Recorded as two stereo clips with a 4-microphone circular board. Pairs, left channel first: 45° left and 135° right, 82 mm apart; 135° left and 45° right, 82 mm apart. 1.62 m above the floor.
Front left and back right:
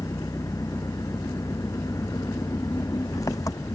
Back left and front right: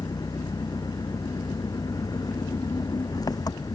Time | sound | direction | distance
0.0 | an engine running | 95° left | ?